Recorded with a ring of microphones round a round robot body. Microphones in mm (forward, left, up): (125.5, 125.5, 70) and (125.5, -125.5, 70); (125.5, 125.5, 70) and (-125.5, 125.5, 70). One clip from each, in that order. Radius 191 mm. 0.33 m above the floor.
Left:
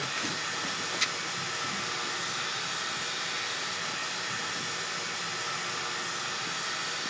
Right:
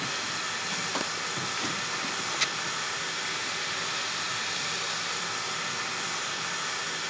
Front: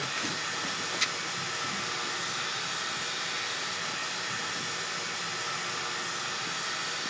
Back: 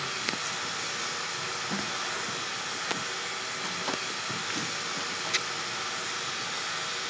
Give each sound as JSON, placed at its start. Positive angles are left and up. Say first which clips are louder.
{"t": 0.0, "sound": "running water", "louder": "right 1 dB, even", "azimuth_deg": -100, "distance_m": 2.5}